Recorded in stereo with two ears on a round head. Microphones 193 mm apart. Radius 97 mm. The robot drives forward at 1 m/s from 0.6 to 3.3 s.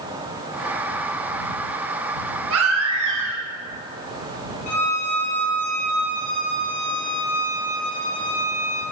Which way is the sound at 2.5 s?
75° right (ahead or behind).